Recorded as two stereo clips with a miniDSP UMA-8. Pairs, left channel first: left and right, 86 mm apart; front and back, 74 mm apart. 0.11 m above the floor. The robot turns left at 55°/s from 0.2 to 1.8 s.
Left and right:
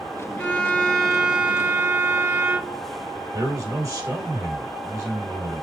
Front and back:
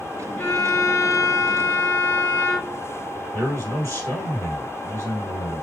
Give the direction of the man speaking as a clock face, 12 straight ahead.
1 o'clock.